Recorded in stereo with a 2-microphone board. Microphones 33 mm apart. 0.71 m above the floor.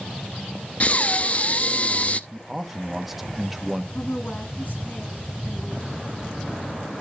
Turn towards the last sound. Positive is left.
turn(degrees=50)  # may be behind; listen again after turning